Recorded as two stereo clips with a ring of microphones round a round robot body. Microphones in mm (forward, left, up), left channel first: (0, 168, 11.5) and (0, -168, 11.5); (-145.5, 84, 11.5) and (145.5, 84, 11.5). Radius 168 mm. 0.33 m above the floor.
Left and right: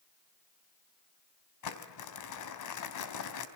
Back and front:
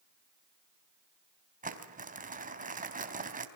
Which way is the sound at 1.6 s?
60° left.